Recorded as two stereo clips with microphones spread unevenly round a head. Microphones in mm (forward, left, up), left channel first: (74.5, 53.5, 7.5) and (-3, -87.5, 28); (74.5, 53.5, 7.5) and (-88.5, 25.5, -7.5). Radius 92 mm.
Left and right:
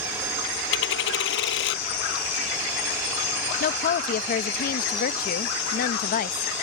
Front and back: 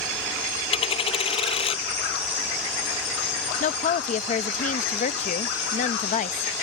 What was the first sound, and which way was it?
A dropped coin, 65° left.